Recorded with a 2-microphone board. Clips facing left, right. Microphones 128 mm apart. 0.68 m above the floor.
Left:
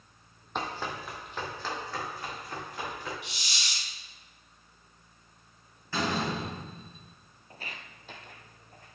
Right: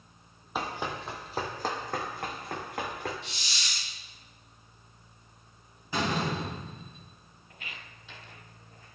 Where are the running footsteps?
5° right (ahead or behind), 1.3 m; by 3.1 s 75° right (ahead or behind), 3 m.